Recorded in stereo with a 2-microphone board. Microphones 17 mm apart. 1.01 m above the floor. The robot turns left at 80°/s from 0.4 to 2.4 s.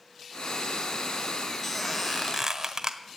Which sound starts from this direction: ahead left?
A squeak, at 1.6 s.